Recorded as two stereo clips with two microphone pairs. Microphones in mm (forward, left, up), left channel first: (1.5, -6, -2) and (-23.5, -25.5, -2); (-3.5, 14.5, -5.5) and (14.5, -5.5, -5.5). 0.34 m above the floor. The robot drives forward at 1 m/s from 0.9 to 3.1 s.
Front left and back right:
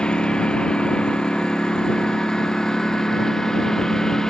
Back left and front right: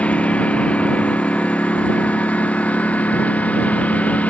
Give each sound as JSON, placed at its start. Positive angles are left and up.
{"t": 0.0, "sound": "a lawn mower", "azimuth_deg": 100}